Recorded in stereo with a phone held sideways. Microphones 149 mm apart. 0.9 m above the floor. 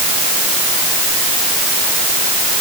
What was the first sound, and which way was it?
Only background noise.